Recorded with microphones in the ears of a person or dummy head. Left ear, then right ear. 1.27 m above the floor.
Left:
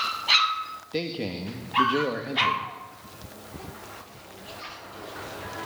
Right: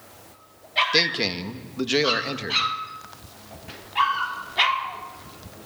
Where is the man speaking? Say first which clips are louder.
Right 9 dB; 55° right (ahead or behind), 1.7 m.